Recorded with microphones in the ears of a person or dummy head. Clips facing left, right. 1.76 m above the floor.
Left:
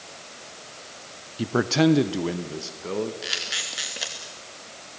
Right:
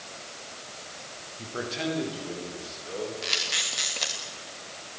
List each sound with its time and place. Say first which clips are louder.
1.4 s a man speaking: left 12 dB; 80° left, 1.1 m; by 3.1 s 60° left (ahead or behind), 3 m
3.2 s a camera shutter: even; 10° left (ahead or behind), 2.5 m